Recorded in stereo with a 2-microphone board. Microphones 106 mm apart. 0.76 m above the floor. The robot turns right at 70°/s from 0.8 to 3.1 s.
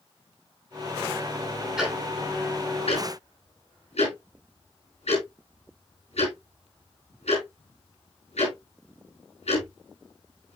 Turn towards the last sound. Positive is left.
turn(degrees=85)